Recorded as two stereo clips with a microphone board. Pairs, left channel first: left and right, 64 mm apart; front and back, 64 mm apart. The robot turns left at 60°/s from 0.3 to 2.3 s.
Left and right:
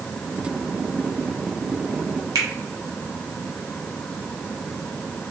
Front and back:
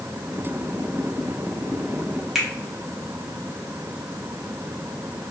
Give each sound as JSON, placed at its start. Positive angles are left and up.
{"t": 2.4, "sound": "a finger snap", "azimuth_deg": -95, "distance_m": 1.0}